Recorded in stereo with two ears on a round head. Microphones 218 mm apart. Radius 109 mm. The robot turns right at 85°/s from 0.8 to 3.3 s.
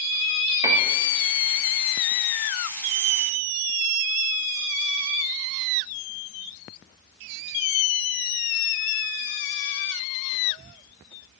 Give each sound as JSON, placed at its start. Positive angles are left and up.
{"t": 0.6, "sound": "a piano", "side_deg": -15, "distance_m": 0.5}